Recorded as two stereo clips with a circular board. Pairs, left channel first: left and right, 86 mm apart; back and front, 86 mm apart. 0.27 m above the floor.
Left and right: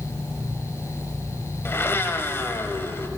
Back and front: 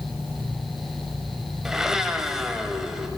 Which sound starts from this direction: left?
A blender, at 1.6 s.